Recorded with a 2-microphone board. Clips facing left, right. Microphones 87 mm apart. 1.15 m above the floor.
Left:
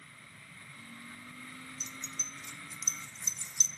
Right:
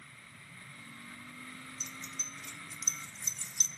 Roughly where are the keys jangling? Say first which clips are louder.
Even; right.